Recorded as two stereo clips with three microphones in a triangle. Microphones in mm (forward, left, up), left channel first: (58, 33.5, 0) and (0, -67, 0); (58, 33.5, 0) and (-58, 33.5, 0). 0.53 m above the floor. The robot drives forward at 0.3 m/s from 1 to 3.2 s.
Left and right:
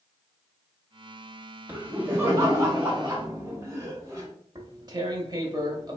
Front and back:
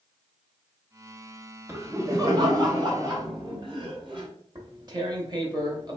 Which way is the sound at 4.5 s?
150° right.